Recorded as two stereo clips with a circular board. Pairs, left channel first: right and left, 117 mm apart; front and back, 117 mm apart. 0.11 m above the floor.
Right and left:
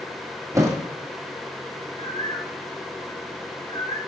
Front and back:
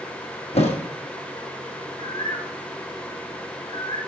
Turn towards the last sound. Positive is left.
turn(degrees=-50)